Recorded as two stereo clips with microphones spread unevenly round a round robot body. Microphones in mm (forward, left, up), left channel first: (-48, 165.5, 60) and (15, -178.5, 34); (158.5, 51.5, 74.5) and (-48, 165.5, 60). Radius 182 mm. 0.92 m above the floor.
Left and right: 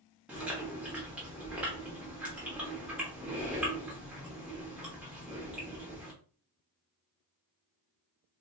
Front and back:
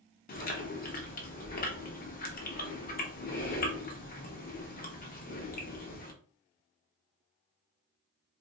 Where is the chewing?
10° left, 0.7 m.